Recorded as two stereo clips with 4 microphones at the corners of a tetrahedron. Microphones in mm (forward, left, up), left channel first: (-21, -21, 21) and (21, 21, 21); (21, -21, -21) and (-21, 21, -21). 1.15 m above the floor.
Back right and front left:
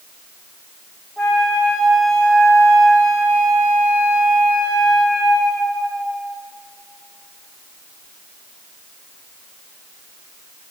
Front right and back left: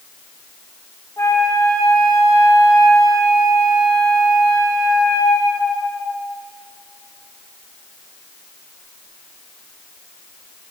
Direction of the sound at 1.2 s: 60° right.